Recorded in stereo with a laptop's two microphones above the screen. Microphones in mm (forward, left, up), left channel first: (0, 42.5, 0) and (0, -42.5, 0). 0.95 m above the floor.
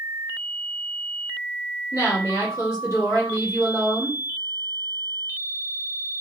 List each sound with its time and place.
1.9 s a woman speaking: 30° right (ahead or behind), 1.9 m